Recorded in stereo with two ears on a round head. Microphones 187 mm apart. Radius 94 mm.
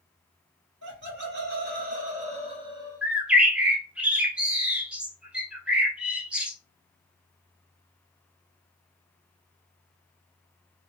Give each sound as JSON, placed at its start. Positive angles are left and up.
{"t": 0.8, "sound": "laughter", "side_deg": -60, "distance_m": 1.7}
{"t": 3.0, "sound": "a bird", "side_deg": -5, "distance_m": 0.5}